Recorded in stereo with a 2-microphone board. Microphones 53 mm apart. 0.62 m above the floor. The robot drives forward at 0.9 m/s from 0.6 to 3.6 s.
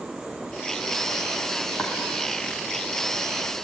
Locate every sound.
1.8 s chopping: 25° left (ahead or behind), 4.5 m